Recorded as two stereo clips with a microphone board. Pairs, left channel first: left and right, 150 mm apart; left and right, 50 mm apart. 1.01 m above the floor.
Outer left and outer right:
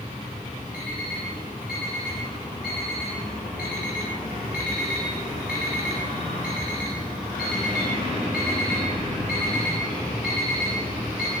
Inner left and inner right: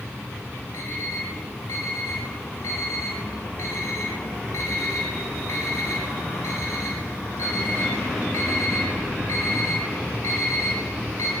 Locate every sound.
0.7 s an alarm clock: 85° left, 7.5 m